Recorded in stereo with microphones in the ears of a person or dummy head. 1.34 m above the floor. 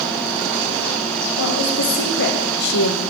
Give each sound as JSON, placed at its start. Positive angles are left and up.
{"t": 1.4, "sound": "a woman speaking", "side_deg": 70, "distance_m": 1.9}